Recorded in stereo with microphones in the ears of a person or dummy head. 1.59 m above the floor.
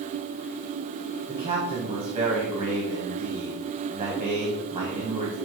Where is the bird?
No bird in this recording.